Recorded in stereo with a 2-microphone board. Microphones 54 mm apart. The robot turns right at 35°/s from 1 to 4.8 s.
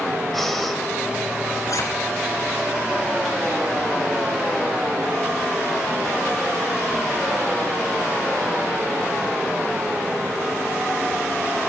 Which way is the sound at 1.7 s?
80° left.